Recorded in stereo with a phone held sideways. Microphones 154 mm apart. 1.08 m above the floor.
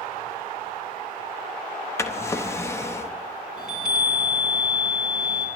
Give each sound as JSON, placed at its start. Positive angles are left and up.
{"t": 2.0, "sound": "a drawer", "side_deg": 15, "distance_m": 0.6}
{"t": 3.6, "sound": "a chime", "side_deg": -5, "distance_m": 3.0}